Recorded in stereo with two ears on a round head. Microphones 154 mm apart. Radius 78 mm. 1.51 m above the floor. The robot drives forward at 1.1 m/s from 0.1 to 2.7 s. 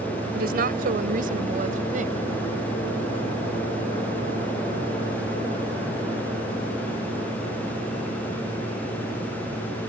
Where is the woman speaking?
60° right (ahead or behind); by 2.3 s 45° right (ahead or behind).